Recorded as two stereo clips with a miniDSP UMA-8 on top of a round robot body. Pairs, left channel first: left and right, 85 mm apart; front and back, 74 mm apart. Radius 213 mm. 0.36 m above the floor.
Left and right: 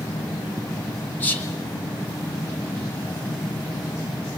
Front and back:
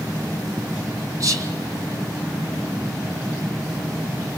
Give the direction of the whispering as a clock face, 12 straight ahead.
7 o'clock.